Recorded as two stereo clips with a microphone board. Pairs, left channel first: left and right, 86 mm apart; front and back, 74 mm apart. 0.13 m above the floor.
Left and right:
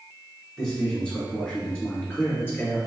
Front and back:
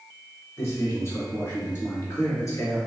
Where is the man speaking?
10° left, 1.7 m; by 2.8 s 30° left, 2.5 m.